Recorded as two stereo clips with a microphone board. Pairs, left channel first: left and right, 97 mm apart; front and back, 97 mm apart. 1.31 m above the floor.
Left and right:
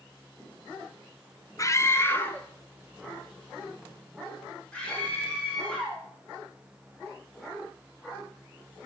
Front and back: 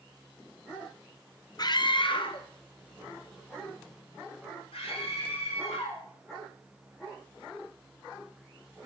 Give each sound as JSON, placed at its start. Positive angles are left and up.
{"t": 1.6, "sound": "a scream", "azimuth_deg": 40, "distance_m": 1.0}